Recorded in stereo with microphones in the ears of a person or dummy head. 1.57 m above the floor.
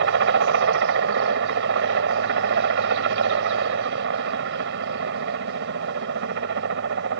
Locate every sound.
0.0 s a helicopter: 65° right (ahead or behind)